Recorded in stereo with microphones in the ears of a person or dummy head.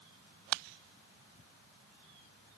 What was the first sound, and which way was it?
Only background noise.